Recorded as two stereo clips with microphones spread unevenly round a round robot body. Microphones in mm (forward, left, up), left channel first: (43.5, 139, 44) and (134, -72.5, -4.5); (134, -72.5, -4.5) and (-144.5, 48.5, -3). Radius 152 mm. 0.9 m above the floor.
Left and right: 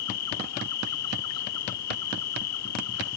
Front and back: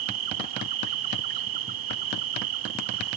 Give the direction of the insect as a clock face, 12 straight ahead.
7 o'clock.